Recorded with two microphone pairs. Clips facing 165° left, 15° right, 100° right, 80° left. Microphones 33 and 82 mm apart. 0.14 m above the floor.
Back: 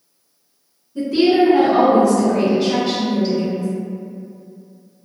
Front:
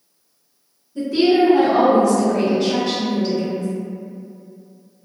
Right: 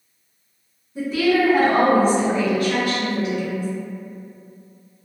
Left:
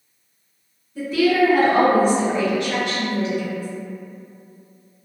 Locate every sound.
0.9 s a woman speaking: 125° right, 1.5 m; by 3.7 s 95° left, 1.9 m